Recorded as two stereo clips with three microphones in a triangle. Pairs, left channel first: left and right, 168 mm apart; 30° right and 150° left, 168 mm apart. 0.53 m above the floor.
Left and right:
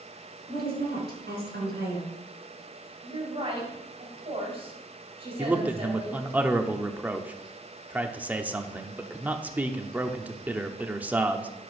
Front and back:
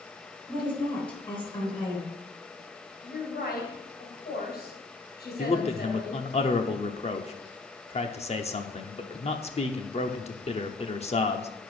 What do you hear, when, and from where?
0.5 s a woman speaking: 90° right, 5 m
3.0 s a woman speaking: 40° right, 4 m
5.4 s a man speaking: 15° right, 0.9 m